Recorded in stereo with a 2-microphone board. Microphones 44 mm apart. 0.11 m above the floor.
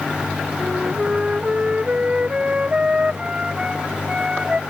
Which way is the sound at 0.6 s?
20° right (ahead or behind).